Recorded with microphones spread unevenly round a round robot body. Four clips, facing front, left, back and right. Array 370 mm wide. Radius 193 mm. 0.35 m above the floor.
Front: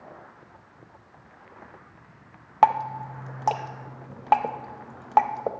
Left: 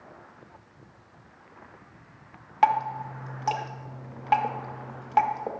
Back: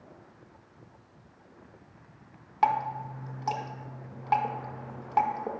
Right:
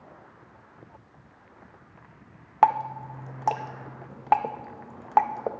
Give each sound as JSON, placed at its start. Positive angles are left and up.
{"t": 2.6, "sound": "dripping", "azimuth_deg": -10, "distance_m": 0.7}